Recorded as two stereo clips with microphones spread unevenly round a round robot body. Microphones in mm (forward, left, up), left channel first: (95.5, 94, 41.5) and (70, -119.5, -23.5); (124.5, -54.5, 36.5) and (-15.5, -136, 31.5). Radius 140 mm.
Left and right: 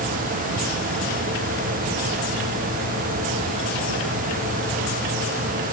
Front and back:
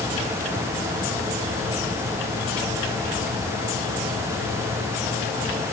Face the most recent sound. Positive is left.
No sound to turn to.